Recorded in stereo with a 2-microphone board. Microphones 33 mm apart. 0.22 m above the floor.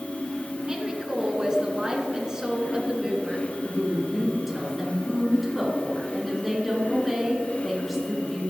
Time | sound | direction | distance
0.7 | a woman speaking | 20° right (ahead or behind) | 2.5 m
3.6 | a woman speaking | 5° right (ahead or behind) | 3.5 m